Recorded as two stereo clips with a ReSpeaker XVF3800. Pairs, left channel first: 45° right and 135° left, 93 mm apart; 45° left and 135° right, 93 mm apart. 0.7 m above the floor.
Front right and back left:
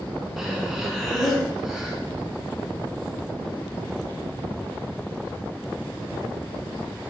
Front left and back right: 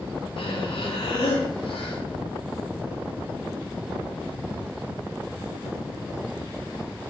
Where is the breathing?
50° left, 2 m.